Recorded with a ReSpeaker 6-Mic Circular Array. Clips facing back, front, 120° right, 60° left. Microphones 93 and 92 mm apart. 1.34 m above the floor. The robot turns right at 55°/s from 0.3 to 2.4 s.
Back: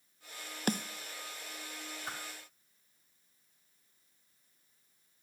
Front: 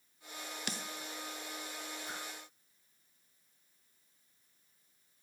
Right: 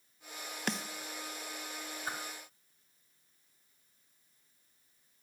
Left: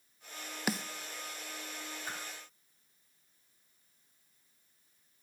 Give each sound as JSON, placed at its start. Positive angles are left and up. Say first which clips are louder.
{"t": 0.7, "sound": "a snare drum", "louder": "back 11 dB, left 2 dB", "azimuth_deg": 145, "distance_m": 0.6}
{"t": 2.1, "sound": "a whoosh", "louder": "back 4 dB, right 4 dB", "azimuth_deg": -170, "distance_m": 2.5}